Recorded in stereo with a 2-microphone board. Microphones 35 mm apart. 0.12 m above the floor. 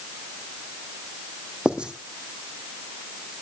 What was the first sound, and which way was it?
Writing, 25° right (ahead or behind).